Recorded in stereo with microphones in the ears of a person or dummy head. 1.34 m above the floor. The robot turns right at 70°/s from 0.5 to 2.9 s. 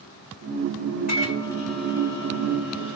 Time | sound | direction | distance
1.1 | a microwave | 130° left | 1.8 m